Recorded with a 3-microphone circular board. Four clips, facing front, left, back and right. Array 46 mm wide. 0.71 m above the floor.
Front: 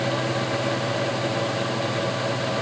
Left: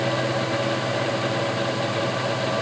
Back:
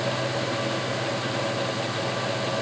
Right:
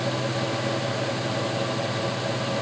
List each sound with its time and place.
Only background noise.